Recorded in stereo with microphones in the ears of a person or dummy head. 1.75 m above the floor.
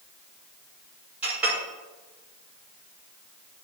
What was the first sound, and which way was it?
A clink, 10° right (ahead or behind).